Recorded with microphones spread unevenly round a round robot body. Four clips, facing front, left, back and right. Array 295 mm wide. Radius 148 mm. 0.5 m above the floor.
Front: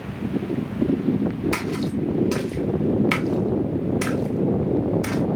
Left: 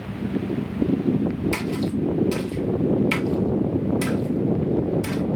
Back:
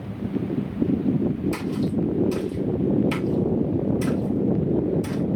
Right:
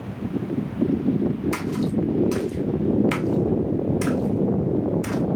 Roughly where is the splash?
Ahead.